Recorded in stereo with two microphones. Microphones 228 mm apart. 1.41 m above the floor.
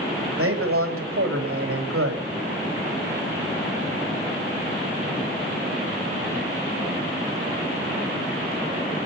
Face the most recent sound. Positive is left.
turn(degrees=-75)  # may be behind; listen again after turning